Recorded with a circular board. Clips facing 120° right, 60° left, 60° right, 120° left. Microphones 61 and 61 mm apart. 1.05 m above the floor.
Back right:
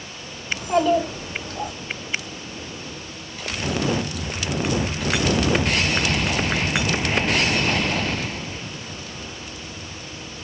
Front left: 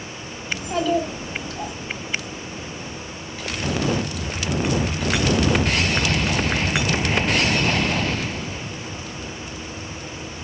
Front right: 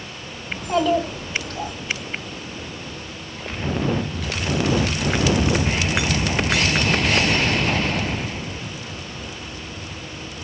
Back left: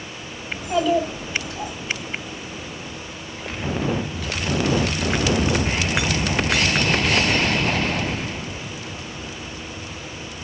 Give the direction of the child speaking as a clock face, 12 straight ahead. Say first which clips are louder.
Back right 3 dB, even; 3 o'clock.